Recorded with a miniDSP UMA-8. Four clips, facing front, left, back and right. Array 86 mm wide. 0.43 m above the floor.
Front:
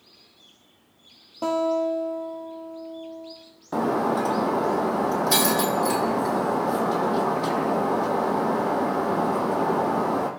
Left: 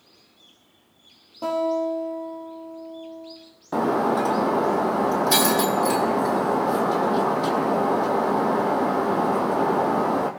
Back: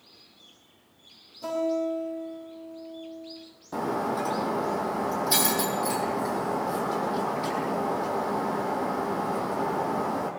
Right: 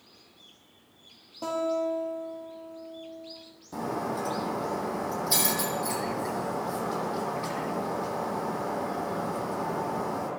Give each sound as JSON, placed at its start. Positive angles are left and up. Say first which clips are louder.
{"t": 1.4, "sound": "a guitar", "louder": "left 5 dB, front 4 dB", "azimuth_deg": 15, "distance_m": 5.0}
{"t": 3.7, "sound": "breaking glass", "louder": "left 10 dB, front 5 dB", "azimuth_deg": 65, "distance_m": 2.0}